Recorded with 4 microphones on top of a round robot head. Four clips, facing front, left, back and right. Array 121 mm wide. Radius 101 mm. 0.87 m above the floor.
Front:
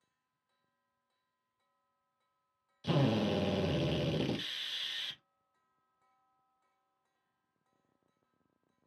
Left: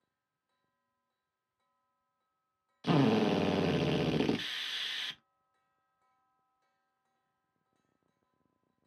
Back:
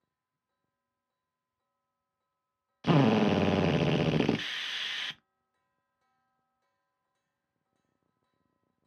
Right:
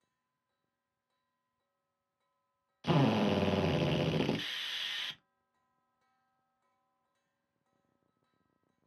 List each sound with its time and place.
2.8 s a drill: 170° left, 0.6 m